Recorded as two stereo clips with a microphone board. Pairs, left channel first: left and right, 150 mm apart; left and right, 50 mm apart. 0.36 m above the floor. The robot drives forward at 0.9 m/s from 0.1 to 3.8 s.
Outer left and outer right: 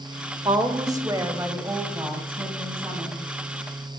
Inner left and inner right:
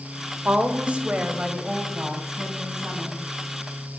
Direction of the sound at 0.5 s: 30° right (ahead or behind).